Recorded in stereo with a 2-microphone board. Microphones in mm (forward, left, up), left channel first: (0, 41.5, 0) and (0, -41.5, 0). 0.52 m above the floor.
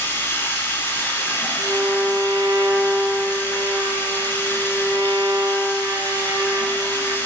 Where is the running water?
30° left (ahead or behind), 1.7 m.